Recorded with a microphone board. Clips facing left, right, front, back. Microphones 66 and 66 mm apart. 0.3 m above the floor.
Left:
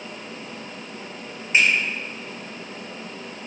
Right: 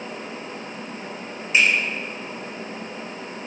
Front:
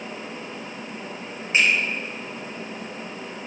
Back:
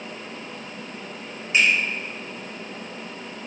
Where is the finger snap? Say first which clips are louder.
Even, even; 45° left, 1.0 m.